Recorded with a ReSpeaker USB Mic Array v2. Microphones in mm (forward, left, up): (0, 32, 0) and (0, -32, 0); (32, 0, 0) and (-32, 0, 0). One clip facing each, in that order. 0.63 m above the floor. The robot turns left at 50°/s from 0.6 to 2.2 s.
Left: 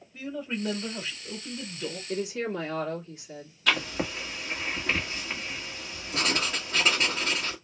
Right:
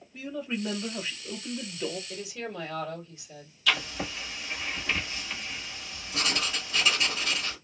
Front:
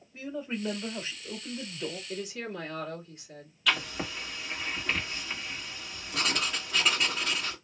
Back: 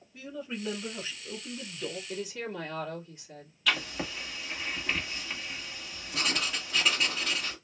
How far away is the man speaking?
About 1.2 m.